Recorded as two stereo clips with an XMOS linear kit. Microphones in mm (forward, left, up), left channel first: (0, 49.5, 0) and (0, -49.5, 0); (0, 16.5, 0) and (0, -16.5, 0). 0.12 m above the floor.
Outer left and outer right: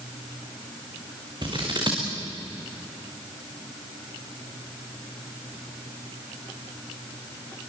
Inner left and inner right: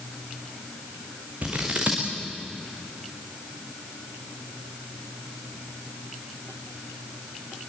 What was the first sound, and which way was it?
Scissors, 50° right (ahead or behind).